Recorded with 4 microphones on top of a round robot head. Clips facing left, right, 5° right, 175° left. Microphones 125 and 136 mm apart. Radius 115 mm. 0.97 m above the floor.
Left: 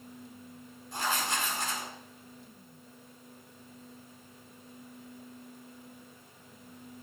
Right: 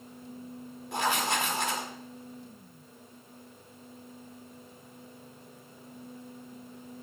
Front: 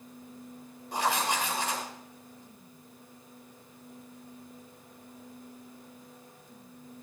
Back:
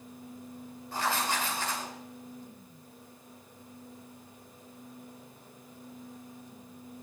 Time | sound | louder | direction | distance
0.9 | writing | right 4 dB, front 2 dB | 80° right | 1.8 m